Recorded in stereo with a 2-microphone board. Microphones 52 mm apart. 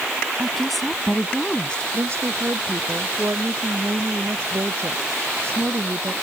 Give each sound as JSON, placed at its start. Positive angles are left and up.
{"t": 0.4, "sound": "a woman speaking", "side_deg": -5}
{"t": 1.9, "sound": "a woman speaking", "side_deg": -50}